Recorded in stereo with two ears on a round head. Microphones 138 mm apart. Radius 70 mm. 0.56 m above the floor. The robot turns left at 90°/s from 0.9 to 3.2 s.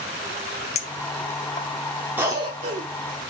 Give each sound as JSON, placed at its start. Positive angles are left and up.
{"t": 0.8, "sound": "a clink", "side_deg": 45, "distance_m": 0.7}
{"t": 2.2, "sound": "a cough", "side_deg": -15, "distance_m": 0.9}